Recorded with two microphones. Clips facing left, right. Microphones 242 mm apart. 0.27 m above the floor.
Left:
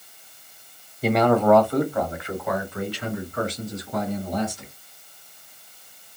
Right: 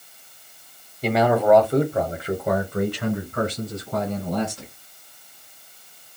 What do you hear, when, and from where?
1.0 s a man speaking: 5° left (ahead or behind), 1.0 m; by 4.7 s 70° right (ahead or behind), 2.5 m